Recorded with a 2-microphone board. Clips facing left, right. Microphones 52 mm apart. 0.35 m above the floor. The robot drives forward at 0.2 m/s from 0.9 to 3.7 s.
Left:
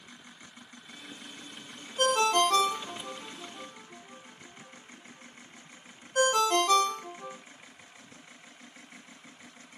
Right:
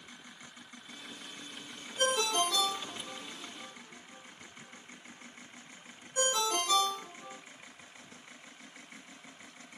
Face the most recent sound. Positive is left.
turn(degrees=55)  # may be behind; listen again after turning